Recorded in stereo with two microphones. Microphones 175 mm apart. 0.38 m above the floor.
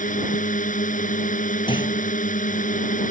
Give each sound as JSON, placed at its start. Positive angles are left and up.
{"t": 0.0, "sound": "a drone", "side_deg": 50}
{"t": 1.7, "sound": "a clunk", "side_deg": 25}